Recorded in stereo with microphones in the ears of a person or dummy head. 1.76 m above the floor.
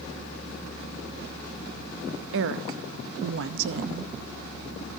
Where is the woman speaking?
70° right (ahead or behind), 0.7 m.